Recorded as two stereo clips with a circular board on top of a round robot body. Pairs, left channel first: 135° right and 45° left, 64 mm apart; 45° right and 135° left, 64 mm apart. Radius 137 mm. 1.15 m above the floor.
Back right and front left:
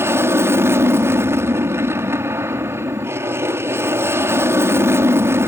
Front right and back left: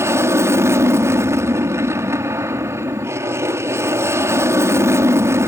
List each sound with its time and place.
0.0 s an aircraft: 90° left